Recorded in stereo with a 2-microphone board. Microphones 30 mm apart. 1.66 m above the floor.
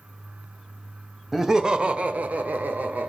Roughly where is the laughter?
Centre.